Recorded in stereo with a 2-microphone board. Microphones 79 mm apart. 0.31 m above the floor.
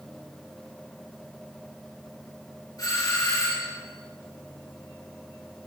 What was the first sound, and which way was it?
A doorbell, 50° left (ahead or behind).